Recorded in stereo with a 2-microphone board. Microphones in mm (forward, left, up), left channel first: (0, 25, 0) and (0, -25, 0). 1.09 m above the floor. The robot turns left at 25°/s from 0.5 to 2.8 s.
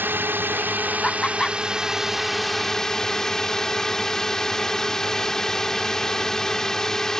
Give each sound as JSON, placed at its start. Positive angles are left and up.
{"t": 0.0, "sound": "a drone", "azimuth_deg": -135}
{"t": 1.0, "sound": "laughter", "side_deg": 15}